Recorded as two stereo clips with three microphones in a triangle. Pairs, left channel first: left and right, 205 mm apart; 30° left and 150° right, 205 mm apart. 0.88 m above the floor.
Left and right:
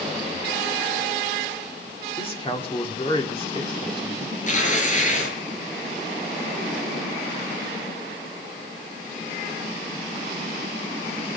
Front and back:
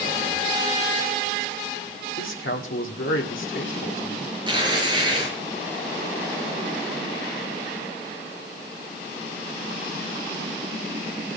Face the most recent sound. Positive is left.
turn(degrees=145)